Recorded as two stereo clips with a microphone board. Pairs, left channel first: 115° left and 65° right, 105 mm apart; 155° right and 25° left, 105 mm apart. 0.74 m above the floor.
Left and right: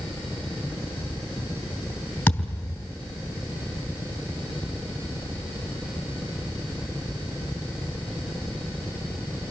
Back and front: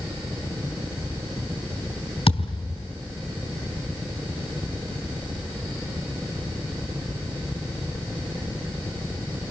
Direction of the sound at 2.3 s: 175° right.